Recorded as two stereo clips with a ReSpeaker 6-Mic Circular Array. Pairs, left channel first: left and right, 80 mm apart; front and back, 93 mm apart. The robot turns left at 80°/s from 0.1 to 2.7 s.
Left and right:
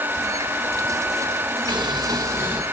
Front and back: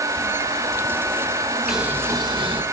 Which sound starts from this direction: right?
Boiling, at 1.7 s.